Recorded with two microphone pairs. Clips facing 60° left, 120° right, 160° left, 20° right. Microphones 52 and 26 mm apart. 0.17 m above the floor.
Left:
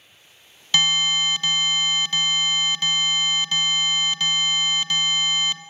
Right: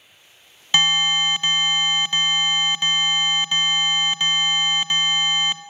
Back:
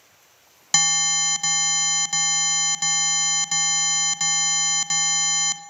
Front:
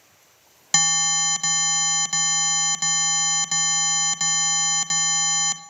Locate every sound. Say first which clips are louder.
0.7 s an alarm: right 2 dB, even; 110° right, 0.7 m